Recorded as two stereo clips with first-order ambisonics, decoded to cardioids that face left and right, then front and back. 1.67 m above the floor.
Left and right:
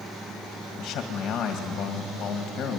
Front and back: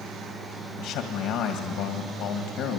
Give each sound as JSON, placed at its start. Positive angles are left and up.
{"t": 0.8, "sound": "a man speaking", "azimuth_deg": 35, "distance_m": 2.0}